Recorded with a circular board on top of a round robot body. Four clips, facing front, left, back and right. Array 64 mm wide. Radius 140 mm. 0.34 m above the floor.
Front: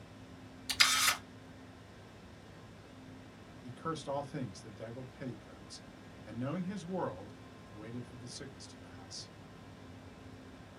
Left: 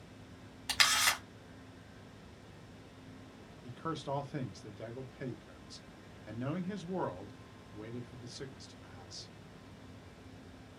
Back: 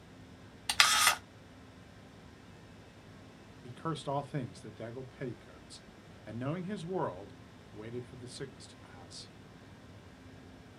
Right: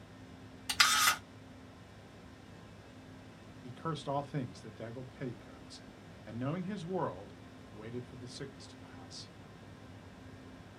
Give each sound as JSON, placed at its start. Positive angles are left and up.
{"t": 0.7, "sound": "a camera shutter", "azimuth_deg": 170, "distance_m": 1.6}
{"t": 3.6, "sound": "a man speaking", "azimuth_deg": -165, "distance_m": 1.0}